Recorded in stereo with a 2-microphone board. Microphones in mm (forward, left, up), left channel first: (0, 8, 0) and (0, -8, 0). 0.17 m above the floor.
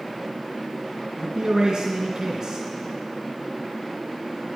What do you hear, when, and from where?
1.2 s a man speaking: 50° right (ahead or behind), 2 m